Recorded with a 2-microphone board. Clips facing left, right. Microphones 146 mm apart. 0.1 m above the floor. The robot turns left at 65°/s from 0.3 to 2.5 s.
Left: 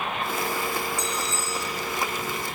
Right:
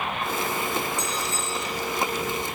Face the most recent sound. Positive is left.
turn(degrees=15)